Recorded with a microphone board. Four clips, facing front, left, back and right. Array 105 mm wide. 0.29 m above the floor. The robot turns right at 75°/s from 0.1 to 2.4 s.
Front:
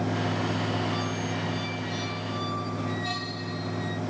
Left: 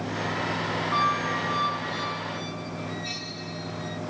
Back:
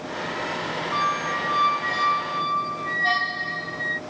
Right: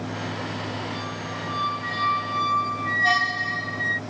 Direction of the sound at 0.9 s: 130° left.